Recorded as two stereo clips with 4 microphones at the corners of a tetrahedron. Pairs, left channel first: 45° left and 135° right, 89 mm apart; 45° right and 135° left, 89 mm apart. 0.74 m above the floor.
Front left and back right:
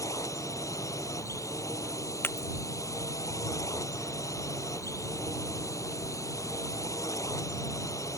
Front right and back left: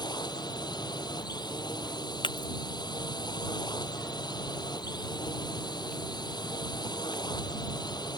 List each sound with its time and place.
0.0 s a drone: 10° right
2.2 s breaking glass: 20° right